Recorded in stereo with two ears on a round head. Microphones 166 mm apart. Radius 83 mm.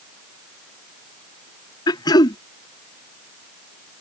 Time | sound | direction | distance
1.9 | throat clearing | 20° left (ahead or behind) | ?